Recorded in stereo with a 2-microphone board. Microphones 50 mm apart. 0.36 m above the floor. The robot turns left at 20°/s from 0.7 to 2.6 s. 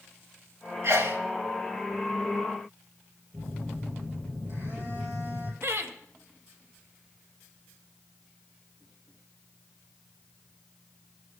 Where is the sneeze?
55° right (ahead or behind), 2 m.